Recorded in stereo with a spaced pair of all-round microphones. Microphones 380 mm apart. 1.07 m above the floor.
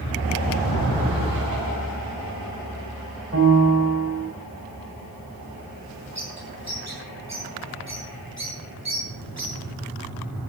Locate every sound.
3.3 s a piano: 35° right (ahead or behind), 3.5 m
6.2 s a bird: 45° right (ahead or behind), 7.5 m